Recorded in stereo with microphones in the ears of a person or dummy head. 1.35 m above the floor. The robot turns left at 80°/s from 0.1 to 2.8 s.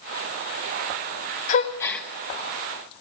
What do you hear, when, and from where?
1.5 s a gasp: 40° left (ahead or behind), 0.7 m; by 2.1 s 5° right (ahead or behind), 0.7 m